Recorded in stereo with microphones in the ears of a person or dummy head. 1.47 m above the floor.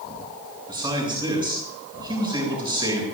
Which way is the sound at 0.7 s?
20° right (ahead or behind).